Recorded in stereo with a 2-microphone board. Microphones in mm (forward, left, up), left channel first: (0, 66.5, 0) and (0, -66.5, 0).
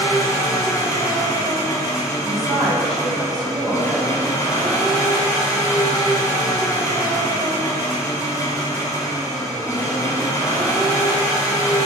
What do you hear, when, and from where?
0.0 s an engine running: 25° left (ahead or behind), 1.4 m
2.2 s a woman speaking: 5° left (ahead or behind), 2 m